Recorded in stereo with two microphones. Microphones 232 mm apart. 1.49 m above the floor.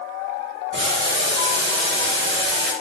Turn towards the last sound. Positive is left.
turn(degrees=-50)  # may be behind; listen again after turning